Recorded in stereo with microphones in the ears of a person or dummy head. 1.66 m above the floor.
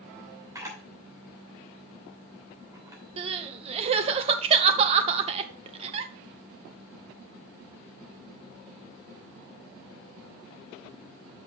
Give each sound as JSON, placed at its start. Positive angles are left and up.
{"t": 0.6, "sound": "a camera shutter", "side_deg": -15, "distance_m": 2.5}
{"t": 3.2, "sound": "crying", "side_deg": -35, "distance_m": 0.7}